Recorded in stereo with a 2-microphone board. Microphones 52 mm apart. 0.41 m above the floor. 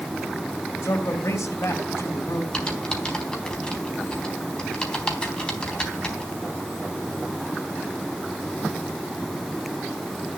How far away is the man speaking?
About 3 m.